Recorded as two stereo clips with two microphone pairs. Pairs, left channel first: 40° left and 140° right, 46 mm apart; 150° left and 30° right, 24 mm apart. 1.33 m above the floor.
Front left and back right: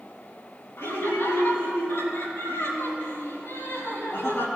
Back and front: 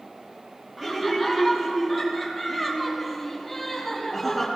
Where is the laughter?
40° left, 4 m; by 4.5 s 60° left, 5.5 m.